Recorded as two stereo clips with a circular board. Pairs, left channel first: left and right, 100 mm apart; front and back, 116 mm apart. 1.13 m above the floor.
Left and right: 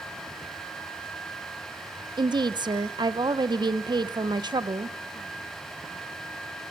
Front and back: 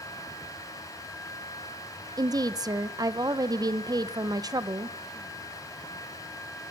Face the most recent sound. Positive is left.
turn(degrees=-125)